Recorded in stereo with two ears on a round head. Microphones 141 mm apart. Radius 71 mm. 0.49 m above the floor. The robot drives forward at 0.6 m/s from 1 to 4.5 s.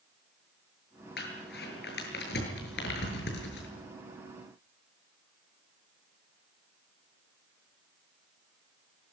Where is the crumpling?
65° left (ahead or behind), 7.5 m; by 3.7 s 75° left (ahead or behind), 7.5 m.